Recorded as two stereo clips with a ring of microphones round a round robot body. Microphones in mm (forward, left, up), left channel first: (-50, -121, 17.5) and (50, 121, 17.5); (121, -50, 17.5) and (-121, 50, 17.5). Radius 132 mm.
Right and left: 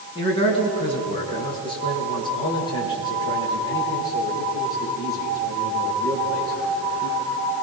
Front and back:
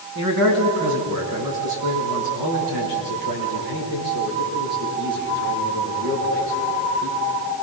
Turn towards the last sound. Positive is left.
turn(degrees=170)